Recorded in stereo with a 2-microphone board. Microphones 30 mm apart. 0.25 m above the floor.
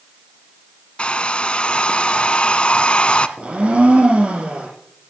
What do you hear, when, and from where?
1.0 s a hair dryer: 35° left (ahead or behind), 0.9 m
3.4 s a blender: 40° right (ahead or behind), 6 m